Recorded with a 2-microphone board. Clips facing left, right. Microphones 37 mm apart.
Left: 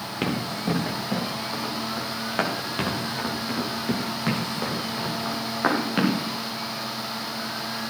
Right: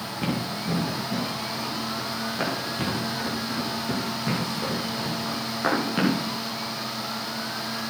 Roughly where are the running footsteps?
Left.